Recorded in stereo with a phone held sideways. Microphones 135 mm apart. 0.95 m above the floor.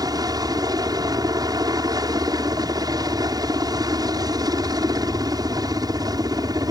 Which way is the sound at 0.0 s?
30° right (ahead or behind).